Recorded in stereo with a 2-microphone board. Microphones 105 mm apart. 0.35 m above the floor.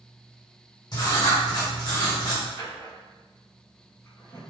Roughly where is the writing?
Left.